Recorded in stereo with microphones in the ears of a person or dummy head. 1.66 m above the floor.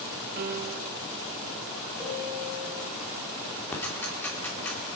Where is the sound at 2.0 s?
Centre (ahead or behind), 6.5 m.